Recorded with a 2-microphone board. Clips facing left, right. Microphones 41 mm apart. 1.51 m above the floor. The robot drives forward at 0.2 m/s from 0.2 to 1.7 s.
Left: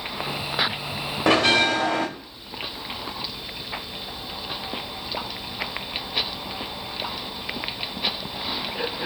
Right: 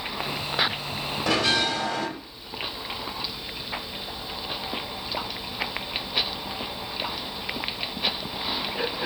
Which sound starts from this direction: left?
A bell, at 1.3 s.